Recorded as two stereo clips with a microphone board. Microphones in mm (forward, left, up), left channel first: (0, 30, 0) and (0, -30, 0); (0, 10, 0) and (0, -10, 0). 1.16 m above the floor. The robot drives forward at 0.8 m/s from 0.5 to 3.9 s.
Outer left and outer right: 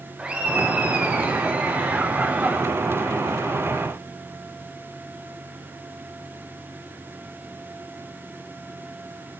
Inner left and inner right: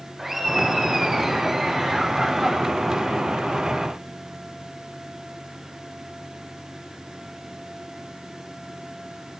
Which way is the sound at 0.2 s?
20° right (ahead or behind).